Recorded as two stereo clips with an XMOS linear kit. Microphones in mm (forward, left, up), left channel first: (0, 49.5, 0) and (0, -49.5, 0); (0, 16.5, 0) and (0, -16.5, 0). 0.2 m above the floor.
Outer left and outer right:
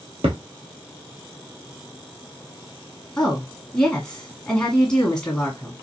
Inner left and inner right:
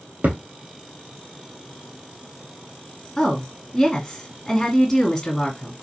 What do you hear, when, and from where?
0.2 s a thud: 80° right, 1.3 m
3.2 s a woman speaking: 10° left (ahead or behind), 1.5 m